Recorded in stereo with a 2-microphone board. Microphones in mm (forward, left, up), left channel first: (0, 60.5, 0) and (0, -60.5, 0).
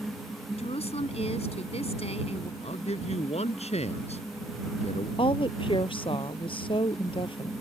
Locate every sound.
0.6 s a woman speaking: 65° left (ahead or behind)
2.6 s a man speaking: 70° left (ahead or behind)
5.2 s a woman speaking: 50° left (ahead or behind)